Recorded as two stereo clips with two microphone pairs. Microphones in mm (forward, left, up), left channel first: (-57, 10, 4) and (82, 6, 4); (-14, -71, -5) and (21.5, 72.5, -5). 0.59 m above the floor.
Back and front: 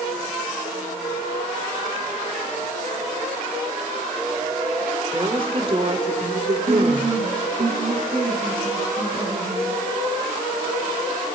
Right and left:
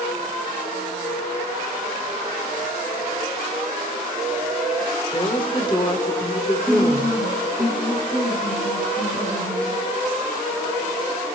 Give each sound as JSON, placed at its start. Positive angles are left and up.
{"t": 5.1, "sound": "a woman speaking", "azimuth_deg": -55, "distance_m": 2.0}
{"t": 6.7, "sound": "a woman speaking", "azimuth_deg": -55, "distance_m": 6.5}